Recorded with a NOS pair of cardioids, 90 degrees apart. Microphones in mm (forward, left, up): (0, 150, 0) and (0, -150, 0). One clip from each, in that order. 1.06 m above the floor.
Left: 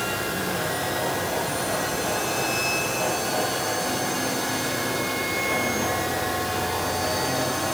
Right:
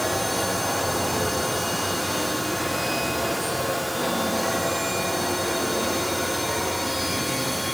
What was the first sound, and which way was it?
Only background noise.